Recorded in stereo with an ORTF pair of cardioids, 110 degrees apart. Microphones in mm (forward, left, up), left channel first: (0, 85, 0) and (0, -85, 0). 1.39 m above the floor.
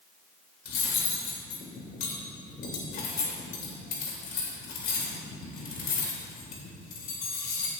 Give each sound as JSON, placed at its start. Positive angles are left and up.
{"t": 0.7, "sound": "cutlery clinking", "azimuth_deg": 65, "distance_m": 2.5}